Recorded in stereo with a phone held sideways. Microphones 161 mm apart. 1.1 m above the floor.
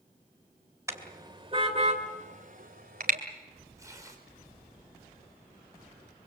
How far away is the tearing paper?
About 5 m.